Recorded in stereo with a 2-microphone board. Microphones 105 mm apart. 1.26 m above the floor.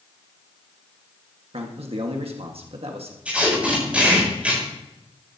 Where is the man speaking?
60° right (ahead or behind), 1.5 m.